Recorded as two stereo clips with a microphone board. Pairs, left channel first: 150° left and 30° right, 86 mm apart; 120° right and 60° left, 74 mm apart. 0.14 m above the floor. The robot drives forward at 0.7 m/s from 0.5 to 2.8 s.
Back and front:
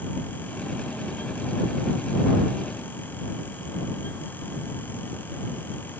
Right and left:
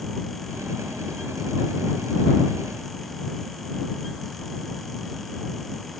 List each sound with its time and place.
Only background noise.